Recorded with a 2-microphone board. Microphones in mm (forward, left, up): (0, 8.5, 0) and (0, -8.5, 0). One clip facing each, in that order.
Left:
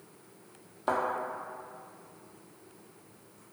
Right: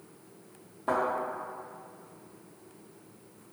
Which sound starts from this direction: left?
A thud, at 0.9 s.